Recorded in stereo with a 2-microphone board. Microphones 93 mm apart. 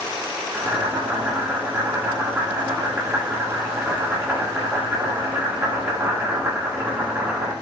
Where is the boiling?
25° right (ahead or behind), 1.7 m.